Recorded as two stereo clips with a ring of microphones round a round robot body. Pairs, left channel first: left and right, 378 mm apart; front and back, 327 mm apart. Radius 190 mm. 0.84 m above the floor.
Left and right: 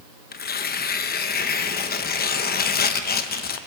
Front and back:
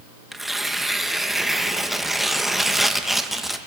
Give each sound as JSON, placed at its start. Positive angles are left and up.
{"t": 0.3, "sound": "tearing paper", "azimuth_deg": 90, "distance_m": 0.9}